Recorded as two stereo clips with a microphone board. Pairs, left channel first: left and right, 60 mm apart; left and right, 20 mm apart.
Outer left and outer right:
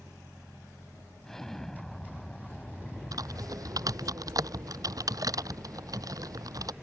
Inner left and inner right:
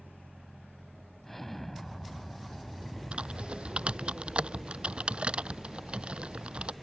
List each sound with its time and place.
1.2 s an explosion: 10° left (ahead or behind)
3.1 s typing on a keyboard: 75° right (ahead or behind)